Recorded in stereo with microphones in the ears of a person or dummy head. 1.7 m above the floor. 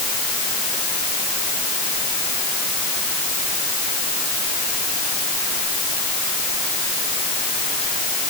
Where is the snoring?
I don't hear snoring.